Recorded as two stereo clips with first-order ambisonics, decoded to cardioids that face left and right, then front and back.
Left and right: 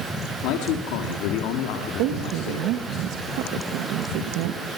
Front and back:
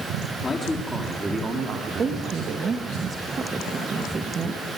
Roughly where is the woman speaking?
Right.